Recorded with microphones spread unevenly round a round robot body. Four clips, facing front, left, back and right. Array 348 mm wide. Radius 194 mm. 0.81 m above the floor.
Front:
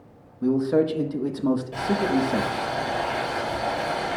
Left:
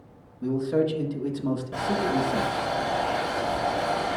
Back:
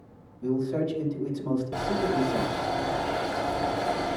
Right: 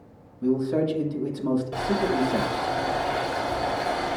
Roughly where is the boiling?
Behind.